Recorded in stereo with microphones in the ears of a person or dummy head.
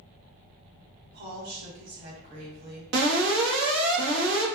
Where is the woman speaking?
50° right (ahead or behind), 1.4 m.